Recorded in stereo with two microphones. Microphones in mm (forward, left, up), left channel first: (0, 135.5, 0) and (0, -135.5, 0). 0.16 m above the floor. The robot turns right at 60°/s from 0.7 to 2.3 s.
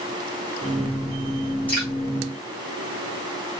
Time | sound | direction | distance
1.7 | dripping | 5° left (ahead or behind) | 6 m